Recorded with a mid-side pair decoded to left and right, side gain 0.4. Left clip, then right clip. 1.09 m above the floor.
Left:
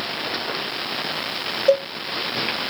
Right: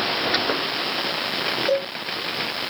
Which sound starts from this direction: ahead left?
A cowbell, at 1.7 s.